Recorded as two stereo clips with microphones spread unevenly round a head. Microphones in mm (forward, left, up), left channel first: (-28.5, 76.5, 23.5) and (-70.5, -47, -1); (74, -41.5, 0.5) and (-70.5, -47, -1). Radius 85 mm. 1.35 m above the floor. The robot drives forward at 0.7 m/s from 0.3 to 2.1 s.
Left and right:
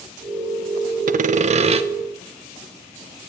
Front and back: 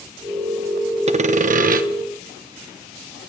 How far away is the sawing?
About 0.7 m.